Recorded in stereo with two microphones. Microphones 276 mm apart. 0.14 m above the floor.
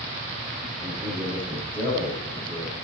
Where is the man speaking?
15° left (ahead or behind), 7 m.